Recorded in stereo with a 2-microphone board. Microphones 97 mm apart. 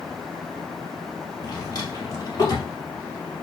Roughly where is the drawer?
Left.